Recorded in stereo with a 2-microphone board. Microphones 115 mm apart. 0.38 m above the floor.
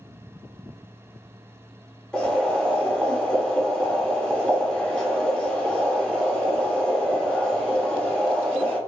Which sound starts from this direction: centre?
Boiling, at 2.1 s.